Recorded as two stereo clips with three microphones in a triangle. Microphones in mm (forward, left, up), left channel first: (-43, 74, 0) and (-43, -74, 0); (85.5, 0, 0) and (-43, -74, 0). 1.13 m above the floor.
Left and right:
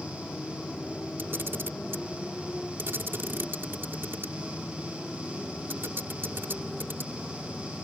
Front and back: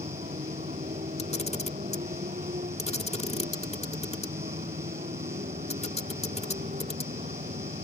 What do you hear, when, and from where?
0.0 s a motorcycle: 175° left; by 7.8 s straight behind
1.2 s a camera shutter: 15° right